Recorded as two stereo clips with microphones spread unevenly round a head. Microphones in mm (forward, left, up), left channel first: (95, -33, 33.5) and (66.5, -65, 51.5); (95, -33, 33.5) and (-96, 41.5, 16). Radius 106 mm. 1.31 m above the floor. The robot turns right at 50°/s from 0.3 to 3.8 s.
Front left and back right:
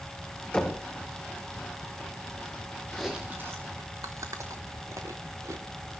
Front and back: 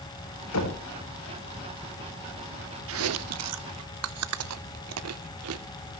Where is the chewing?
130° left, 0.9 m; by 5.7 s 175° left, 0.9 m.